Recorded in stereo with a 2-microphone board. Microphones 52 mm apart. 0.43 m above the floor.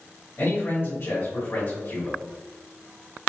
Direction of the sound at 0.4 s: 55° left (ahead or behind).